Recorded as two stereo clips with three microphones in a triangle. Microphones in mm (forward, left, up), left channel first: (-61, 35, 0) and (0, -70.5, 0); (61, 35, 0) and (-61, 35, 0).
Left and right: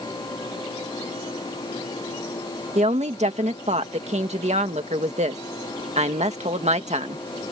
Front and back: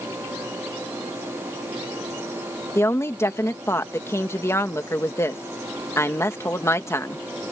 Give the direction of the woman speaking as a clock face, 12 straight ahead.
2 o'clock.